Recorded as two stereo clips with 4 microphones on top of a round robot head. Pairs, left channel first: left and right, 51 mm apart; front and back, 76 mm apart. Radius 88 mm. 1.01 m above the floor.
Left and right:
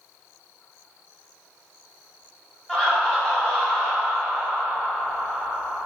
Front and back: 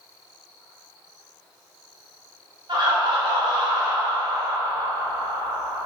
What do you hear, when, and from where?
2.7 s laughter: 165° left, 1.3 m